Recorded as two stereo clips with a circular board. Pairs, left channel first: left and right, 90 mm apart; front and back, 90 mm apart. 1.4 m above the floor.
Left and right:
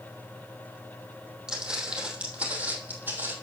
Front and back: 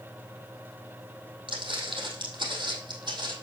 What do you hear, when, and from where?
1.5 s footsteps: 170° right, 3.5 m; by 3.3 s 155° right, 3 m